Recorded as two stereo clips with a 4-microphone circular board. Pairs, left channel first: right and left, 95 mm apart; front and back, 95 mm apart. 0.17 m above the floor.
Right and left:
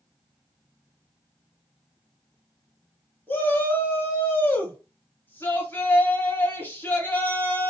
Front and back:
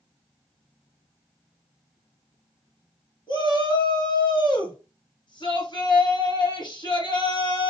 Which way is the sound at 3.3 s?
25° right.